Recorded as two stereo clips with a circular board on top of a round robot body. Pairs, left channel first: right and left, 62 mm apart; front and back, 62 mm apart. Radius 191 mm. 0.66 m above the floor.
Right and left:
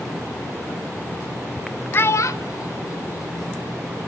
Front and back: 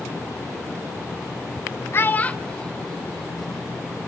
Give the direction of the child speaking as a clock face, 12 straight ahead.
1 o'clock.